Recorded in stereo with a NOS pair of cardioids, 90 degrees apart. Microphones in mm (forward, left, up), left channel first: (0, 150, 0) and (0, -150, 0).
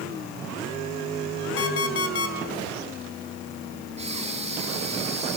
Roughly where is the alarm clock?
Ahead left.